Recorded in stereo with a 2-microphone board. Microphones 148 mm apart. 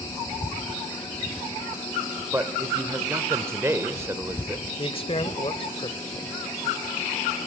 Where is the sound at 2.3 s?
15° right (ahead or behind), 1.0 m.